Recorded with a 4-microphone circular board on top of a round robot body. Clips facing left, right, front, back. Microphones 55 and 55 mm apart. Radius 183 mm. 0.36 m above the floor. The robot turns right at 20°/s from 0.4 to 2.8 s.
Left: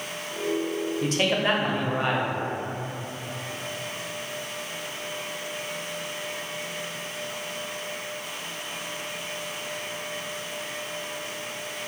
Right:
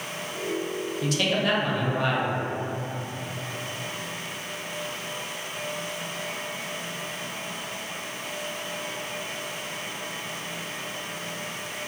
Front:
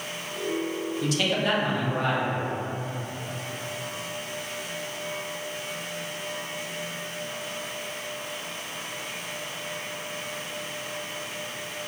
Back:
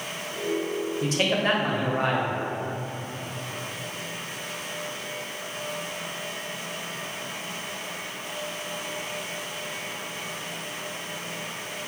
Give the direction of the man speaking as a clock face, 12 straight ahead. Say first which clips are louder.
Left 1 dB, back 1 dB; 8 o'clock.